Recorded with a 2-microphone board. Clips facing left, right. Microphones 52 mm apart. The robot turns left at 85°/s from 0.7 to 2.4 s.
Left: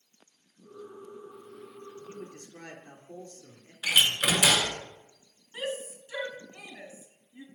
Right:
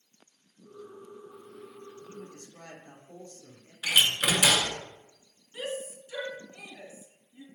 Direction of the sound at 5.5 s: 30° left (ahead or behind).